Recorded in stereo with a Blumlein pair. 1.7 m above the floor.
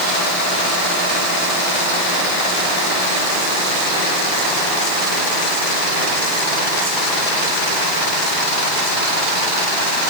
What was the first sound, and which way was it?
Only background noise.